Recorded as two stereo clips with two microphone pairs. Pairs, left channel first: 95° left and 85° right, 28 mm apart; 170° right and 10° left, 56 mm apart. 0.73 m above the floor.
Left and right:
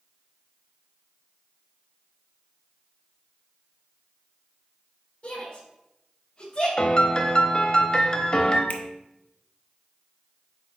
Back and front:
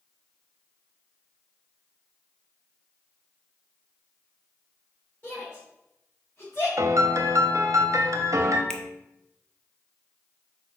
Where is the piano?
35° left, 0.8 m.